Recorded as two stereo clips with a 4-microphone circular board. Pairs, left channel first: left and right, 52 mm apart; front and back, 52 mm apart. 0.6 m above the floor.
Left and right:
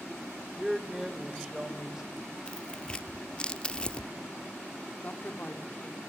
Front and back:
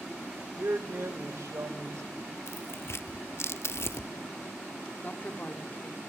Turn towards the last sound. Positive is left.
turn(degrees=50)